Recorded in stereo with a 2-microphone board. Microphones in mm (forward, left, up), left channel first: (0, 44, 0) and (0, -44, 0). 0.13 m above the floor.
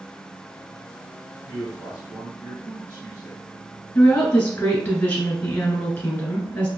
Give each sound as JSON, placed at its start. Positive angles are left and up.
{"t": 1.4, "sound": "a man speaking", "side_deg": -20, "distance_m": 2.0}
{"t": 4.0, "sound": "a woman speaking", "side_deg": 15, "distance_m": 1.4}